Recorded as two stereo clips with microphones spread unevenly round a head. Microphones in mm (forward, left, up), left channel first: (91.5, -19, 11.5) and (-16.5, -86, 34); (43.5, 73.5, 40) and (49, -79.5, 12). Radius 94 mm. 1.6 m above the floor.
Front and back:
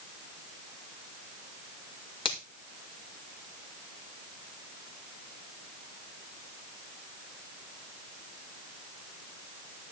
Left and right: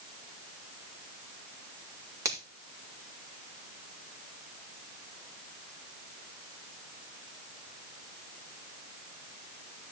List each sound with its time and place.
2.2 s a finger snap: 15° right, 5 m